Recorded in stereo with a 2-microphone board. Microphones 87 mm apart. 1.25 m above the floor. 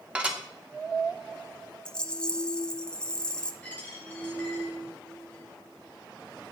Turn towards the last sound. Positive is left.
turn(degrees=15)  # may be behind; listen again after turning